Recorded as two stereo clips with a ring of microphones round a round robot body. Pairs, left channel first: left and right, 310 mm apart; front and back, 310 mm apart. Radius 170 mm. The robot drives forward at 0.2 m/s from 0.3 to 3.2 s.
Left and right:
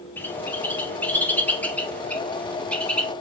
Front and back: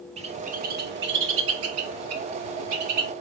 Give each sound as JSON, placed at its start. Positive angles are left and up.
{"t": 0.2, "sound": "a bird", "azimuth_deg": 165, "distance_m": 0.5}